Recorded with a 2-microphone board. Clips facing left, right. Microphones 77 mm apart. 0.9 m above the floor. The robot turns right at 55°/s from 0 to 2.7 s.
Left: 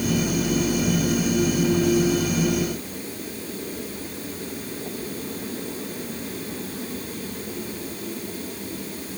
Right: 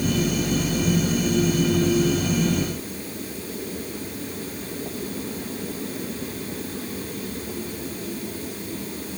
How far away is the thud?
I don't hear a thud.